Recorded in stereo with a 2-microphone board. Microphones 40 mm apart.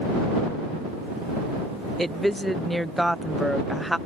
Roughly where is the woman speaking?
Centre.